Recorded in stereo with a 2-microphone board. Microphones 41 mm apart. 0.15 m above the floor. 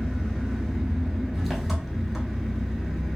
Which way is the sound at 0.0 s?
10° right (ahead or behind).